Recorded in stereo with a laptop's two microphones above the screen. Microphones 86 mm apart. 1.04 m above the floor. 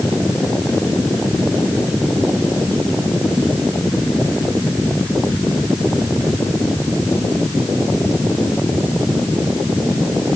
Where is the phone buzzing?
I don't hear a phone buzzing.